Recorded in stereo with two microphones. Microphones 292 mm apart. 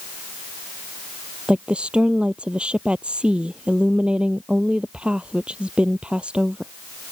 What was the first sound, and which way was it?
A woman speaking, 5° right (ahead or behind).